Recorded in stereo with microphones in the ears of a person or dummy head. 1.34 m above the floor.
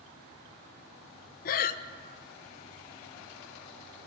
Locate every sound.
1.4 s breathing: 60° left (ahead or behind), 0.8 m